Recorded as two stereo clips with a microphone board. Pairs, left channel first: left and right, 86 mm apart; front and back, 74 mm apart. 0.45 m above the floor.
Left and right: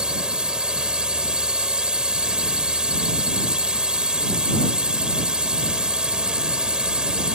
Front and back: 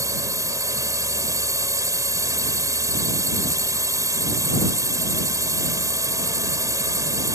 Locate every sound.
0.0 s a drone: 170° right